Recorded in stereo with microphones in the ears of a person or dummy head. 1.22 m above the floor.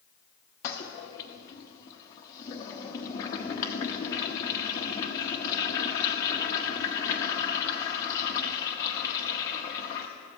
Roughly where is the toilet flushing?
Centre.